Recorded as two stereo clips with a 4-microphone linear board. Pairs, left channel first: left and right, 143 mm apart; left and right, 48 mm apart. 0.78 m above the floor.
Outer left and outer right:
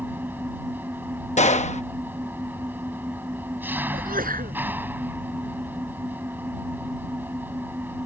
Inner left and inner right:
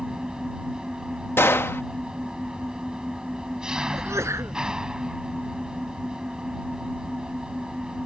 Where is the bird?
No bird in this recording.